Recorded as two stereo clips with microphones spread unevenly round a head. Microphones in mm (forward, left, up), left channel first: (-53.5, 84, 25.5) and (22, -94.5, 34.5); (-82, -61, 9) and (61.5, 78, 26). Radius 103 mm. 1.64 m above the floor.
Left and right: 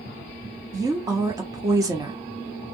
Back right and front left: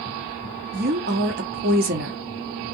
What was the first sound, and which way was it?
A woman speaking, 5° left.